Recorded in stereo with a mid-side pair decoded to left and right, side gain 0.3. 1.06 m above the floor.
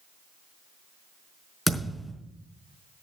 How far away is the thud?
About 4.5 m.